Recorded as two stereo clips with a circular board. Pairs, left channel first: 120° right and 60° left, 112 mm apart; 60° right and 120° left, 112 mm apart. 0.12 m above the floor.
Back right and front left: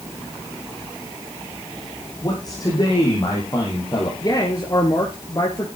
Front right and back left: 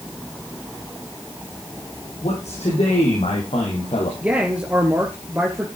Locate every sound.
2.2 s a man speaking: 70° right, 5 m
4.2 s a man speaking: 165° right, 2.0 m